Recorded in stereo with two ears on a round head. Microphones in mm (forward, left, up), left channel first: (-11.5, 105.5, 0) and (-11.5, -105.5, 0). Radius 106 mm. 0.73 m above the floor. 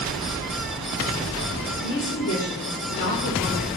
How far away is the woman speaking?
About 2 m.